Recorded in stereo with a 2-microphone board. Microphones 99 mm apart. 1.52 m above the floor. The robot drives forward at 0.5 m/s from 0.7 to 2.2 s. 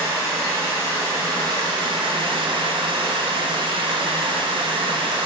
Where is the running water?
30° right (ahead or behind), 1.1 m; by 5.3 s 55° right (ahead or behind), 0.6 m.